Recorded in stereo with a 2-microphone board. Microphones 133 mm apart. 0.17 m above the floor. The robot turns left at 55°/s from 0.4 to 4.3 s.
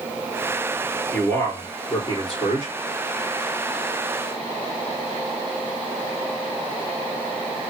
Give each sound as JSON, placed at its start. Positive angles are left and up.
{"t": 1.1, "sound": "a man speaking", "azimuth_deg": 175, "distance_m": 3.0}